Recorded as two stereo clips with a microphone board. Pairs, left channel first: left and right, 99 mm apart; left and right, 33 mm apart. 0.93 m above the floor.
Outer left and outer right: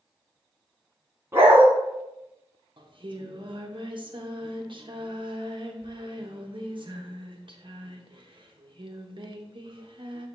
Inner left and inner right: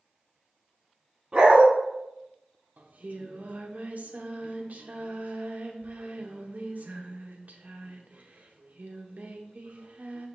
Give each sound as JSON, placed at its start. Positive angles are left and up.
{"t": 1.3, "sound": "a dog barking", "side_deg": -25, "distance_m": 2.5}
{"t": 2.8, "sound": "singing", "side_deg": -55, "distance_m": 0.8}